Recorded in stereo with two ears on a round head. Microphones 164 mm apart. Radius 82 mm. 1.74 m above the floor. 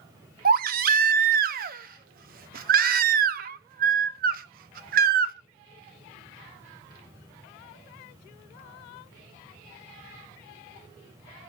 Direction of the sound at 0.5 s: 45° right (ahead or behind).